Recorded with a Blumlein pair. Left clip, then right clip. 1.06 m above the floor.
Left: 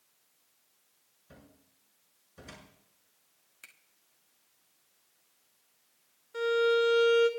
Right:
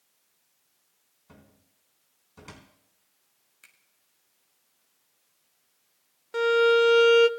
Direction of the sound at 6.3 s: 45° right.